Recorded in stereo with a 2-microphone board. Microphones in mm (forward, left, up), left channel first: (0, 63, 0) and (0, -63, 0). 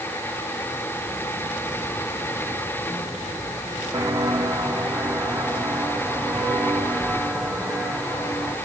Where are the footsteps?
25° right (ahead or behind), 3 m; by 8.6 s 5° left (ahead or behind), 5.5 m.